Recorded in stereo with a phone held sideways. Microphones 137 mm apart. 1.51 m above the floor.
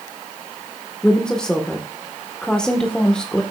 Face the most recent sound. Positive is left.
turn(degrees=5)  # may be behind; listen again after turning